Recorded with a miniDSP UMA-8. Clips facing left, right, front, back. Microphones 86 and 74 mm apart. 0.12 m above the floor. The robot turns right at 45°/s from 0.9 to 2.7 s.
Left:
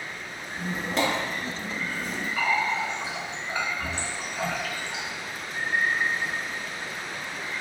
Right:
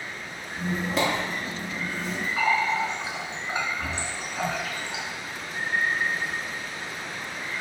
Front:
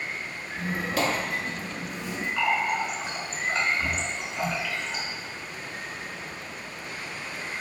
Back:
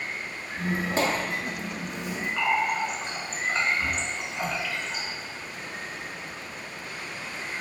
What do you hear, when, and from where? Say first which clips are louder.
0.6 s a squeak: right 1 dB, back 1 dB; straight behind, 0.7 m; by 2.3 s 115° right, 0.7 m
2.4 s a running tap: right 2 dB, even; 105° right, 0.8 m; by 5.0 s 90° right, 0.8 m